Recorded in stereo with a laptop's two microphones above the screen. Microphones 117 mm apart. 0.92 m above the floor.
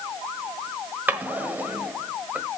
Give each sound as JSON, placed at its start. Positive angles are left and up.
{"t": 1.1, "sound": "a drawer", "side_deg": -15, "distance_m": 1.1}